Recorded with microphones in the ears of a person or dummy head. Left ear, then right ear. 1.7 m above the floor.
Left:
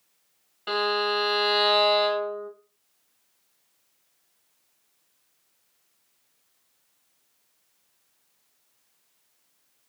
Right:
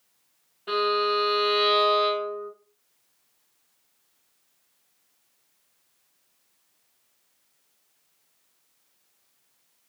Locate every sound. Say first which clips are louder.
0.7 s a violin: right 1 dB; 40° left (ahead or behind), 1.3 m